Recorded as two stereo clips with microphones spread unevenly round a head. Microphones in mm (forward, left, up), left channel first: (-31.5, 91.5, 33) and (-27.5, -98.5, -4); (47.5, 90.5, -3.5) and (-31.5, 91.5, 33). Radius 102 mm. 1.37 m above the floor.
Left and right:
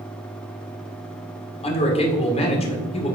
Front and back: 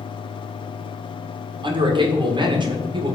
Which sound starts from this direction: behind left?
A man speaking, at 1.6 s.